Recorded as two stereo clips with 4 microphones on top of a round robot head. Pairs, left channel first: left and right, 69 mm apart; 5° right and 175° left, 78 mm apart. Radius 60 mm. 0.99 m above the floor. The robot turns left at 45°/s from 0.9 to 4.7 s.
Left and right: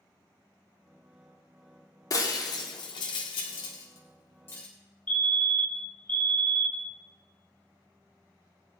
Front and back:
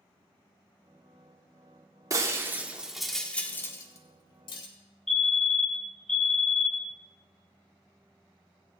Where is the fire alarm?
70° left, 1.1 m.